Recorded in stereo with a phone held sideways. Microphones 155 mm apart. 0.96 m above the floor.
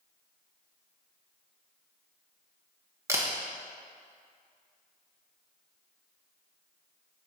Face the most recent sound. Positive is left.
turn(degrees=-20)  # may be behind; listen again after turning